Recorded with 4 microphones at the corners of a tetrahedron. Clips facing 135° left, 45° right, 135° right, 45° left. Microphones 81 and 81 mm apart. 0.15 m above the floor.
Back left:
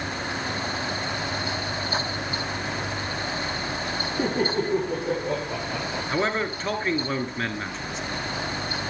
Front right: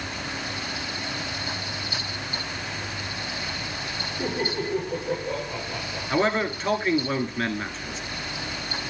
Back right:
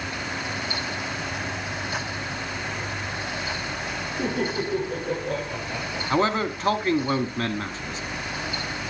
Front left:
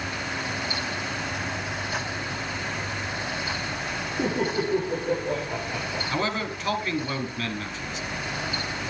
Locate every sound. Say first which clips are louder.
4.2 s laughter: back left 3 dB, front left 1 dB; 115° left, 6 m
6.1 s a man speaking: front right 3 dB, back right 7 dB; 135° right, 1.7 m